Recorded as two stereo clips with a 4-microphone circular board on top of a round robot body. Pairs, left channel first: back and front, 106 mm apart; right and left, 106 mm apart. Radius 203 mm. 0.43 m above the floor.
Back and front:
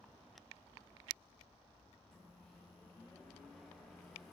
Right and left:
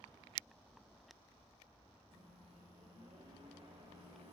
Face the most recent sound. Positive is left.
turn(degrees=95)